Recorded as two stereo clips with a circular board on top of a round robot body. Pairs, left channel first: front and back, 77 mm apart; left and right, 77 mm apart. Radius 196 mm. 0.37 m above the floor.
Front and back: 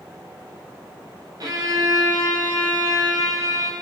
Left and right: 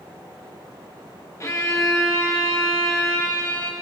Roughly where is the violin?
Behind left.